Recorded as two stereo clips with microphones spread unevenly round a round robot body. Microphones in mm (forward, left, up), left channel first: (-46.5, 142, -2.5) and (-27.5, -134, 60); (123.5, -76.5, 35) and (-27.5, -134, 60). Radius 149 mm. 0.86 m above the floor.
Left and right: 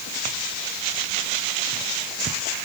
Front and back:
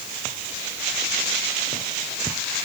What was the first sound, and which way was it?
Only background noise.